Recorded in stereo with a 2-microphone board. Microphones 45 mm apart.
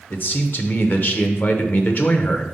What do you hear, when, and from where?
0.1 s a man speaking: 45° left (ahead or behind), 0.9 m